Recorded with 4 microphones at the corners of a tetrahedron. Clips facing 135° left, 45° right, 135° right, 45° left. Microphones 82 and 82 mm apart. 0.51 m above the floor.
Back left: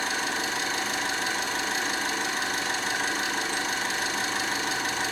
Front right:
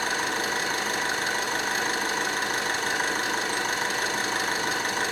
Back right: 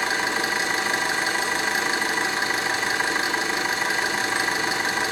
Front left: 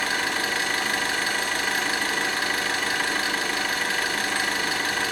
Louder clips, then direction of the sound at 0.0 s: Front right 2 dB, back right 2 dB; 70° right.